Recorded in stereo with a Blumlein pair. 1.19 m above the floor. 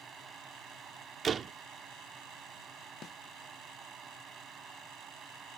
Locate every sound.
0.0 s a fan: 20° right
1.2 s a door slam: 25° right
3.0 s a snare drum: 25° left